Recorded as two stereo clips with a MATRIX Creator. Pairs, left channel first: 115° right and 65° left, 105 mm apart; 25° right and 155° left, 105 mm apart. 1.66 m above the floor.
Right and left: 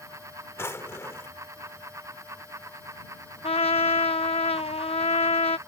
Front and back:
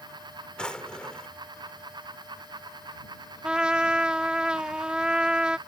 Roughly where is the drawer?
Right.